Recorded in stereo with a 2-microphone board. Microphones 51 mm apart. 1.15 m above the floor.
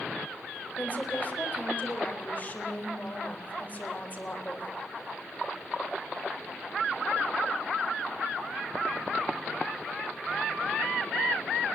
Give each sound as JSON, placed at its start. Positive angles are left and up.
{"t": 0.8, "sound": "a woman speaking", "side_deg": 35, "distance_m": 4.0}